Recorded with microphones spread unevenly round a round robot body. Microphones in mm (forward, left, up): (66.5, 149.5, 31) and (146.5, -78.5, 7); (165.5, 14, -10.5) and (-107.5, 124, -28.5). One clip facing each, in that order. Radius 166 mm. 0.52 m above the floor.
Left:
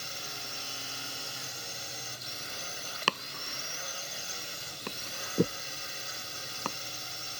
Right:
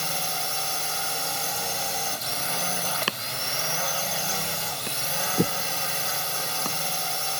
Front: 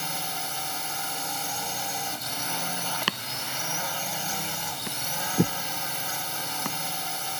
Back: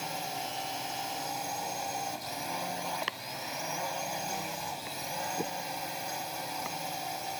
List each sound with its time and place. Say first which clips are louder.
0.0 s a drone: right 12 dB, front 1 dB; 85° right
3.1 s chopping: right 4 dB, front 5 dB; 5° left